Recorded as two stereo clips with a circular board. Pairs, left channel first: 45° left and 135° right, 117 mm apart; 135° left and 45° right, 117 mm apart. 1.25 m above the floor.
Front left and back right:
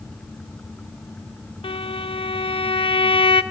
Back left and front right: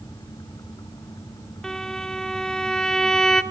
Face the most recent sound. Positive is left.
turn(degrees=50)